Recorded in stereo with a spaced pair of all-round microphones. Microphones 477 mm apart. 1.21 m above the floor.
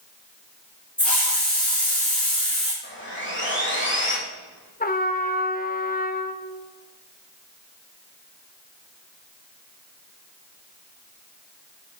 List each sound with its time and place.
1.0 s a hiss: centre (ahead or behind), 4 m
2.8 s sawing: 25° left (ahead or behind), 2.5 m
4.8 s a trumpet: 20° left (ahead or behind), 0.7 m